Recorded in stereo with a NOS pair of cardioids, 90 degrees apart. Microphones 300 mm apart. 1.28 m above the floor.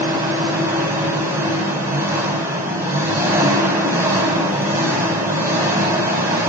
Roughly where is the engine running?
Ahead.